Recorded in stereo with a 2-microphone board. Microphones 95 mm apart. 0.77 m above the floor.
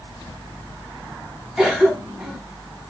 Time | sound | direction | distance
1.6 | a cough | 5° right (ahead or behind) | 1.1 m